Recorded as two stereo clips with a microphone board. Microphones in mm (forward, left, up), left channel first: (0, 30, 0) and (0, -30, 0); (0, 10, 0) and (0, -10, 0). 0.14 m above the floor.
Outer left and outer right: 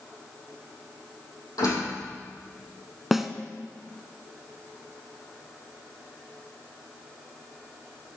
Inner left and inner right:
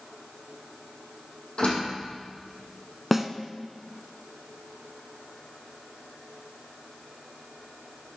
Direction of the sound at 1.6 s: 70° left (ahead or behind).